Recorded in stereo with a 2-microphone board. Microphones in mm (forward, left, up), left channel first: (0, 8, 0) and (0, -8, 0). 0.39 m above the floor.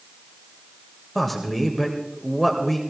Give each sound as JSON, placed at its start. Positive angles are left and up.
{"t": 1.1, "sound": "a man speaking", "side_deg": 10, "distance_m": 1.4}